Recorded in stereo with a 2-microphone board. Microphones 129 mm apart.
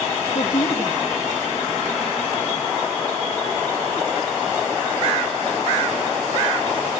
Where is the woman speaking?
65° left (ahead or behind), 1.9 m.